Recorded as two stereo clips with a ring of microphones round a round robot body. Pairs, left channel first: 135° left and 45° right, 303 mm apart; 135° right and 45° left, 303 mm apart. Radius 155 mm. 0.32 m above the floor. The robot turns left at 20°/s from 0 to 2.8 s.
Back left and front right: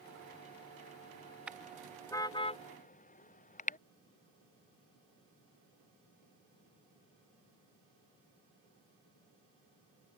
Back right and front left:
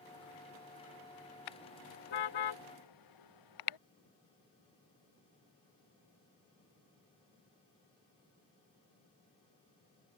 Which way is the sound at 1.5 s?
130° right.